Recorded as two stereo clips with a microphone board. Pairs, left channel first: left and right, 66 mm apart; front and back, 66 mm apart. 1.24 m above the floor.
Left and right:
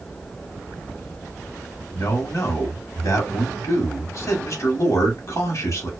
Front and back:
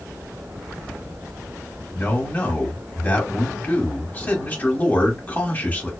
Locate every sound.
1.9 s a man speaking: 60° left, 1.0 m